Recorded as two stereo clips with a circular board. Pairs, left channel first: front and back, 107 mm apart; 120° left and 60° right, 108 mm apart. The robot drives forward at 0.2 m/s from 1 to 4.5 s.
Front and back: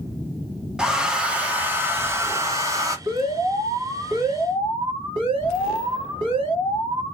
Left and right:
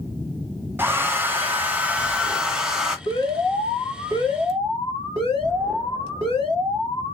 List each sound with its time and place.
0.8 s a hair dryer: 100° right, 0.8 m; by 3.0 s 140° right, 0.9 m
3.1 s an alarm: 160° left, 1.6 m; by 7.2 s 165° left, 1.8 m